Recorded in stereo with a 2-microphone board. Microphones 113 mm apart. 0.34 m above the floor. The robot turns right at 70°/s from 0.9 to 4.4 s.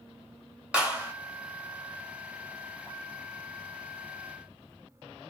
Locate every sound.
0.7 s a clap: 10° right (ahead or behind), 1.1 m; by 1.1 s 20° right (ahead or behind), 1.1 m